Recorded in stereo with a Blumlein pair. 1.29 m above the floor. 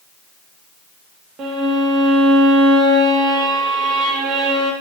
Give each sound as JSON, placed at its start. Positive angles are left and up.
{"t": 1.4, "sound": "a violin", "azimuth_deg": -30, "distance_m": 1.0}